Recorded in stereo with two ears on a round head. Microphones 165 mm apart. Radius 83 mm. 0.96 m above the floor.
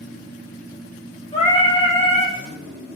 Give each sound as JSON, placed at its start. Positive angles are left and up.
{"t": 1.3, "sound": "singing", "side_deg": 25, "distance_m": 0.9}